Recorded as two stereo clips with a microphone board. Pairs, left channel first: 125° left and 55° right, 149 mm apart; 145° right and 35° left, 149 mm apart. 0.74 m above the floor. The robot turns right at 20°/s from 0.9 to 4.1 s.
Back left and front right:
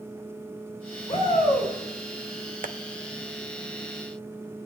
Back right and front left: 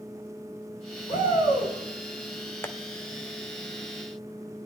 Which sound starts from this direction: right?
Tapping, at 2.6 s.